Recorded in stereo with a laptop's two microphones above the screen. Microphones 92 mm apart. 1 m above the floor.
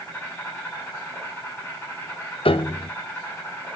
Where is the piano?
75° left (ahead or behind), 0.5 m.